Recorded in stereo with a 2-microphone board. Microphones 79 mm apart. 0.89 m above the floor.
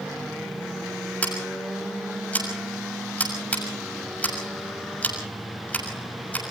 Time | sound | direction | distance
1.2 | scissors | 20° left (ahead or behind) | 6.5 m